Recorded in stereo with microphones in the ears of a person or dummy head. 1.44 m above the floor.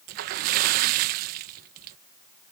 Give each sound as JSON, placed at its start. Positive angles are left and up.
{"t": 0.1, "sound": "a splash", "side_deg": -50}